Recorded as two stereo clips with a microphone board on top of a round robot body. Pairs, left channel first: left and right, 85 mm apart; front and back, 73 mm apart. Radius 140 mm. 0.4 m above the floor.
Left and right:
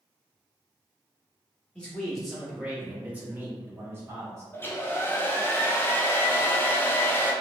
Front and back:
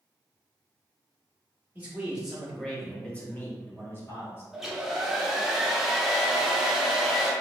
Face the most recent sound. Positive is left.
turn(degrees=100)